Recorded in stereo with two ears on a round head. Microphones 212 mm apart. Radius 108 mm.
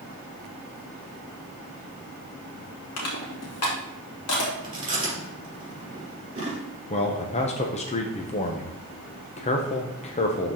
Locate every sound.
3.0 s crushing: 70° left (ahead or behind), 2.0 m
4.6 s chewing: 25° right (ahead or behind), 3.5 m
6.9 s a man speaking: 30° left (ahead or behind), 0.7 m